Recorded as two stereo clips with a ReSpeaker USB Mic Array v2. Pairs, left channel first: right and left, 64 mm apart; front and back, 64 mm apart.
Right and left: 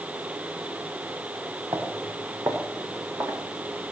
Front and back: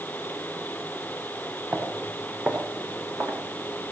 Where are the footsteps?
115° left, 4.5 m; by 3.9 s 145° left, 3.5 m.